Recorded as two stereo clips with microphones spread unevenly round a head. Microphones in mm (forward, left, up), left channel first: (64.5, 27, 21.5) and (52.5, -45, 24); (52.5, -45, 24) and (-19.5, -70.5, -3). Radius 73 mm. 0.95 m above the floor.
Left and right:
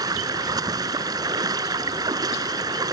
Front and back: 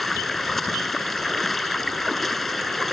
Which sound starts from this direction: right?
Running water, at 0.0 s.